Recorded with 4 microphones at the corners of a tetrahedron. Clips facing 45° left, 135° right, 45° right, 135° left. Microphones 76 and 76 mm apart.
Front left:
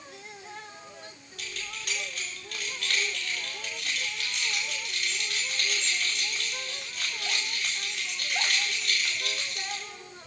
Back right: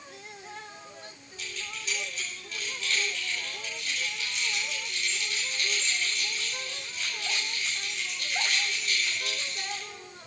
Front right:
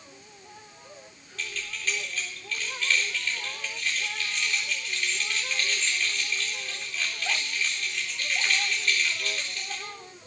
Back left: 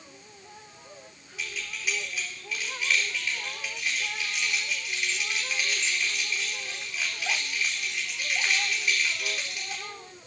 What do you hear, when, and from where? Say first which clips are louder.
1.4 s keys jangling: even, even; 60° left, 4 m